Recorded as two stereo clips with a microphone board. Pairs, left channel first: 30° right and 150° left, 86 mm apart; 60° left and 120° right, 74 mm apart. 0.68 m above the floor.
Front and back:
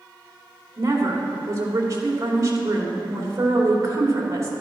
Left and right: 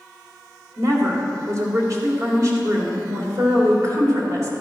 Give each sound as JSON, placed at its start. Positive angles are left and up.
{"t": 0.8, "sound": "a woman speaking", "azimuth_deg": -160, "distance_m": 2.5}